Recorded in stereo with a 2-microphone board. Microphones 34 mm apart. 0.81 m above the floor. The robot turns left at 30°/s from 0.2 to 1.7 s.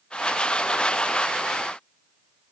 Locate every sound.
Only background noise.